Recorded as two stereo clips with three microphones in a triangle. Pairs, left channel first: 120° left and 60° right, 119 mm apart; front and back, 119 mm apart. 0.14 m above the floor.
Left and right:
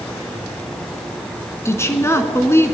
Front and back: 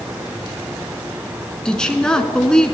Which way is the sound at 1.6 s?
75° left.